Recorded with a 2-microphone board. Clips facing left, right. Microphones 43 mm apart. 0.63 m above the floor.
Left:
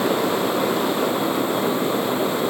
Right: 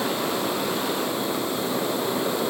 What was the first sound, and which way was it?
Only background noise.